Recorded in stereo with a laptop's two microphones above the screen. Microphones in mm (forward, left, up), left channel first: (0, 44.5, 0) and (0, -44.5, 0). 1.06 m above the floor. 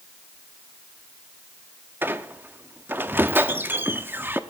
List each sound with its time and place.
2.0 s a squeak: 20° right (ahead or behind), 0.8 m